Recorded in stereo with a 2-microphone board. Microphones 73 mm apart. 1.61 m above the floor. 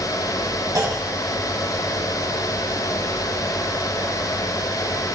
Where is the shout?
No shout in this recording.